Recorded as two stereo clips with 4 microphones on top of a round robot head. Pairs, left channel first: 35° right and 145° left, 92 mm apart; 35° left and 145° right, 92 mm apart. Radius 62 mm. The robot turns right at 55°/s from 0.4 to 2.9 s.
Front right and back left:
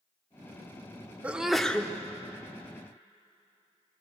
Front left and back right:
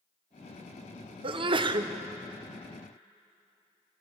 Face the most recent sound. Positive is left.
turn(degrees=-50)